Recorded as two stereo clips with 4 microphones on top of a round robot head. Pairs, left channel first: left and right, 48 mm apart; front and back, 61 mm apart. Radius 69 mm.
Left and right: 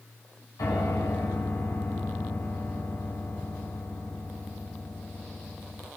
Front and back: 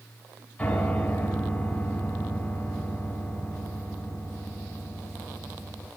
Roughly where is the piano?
Left.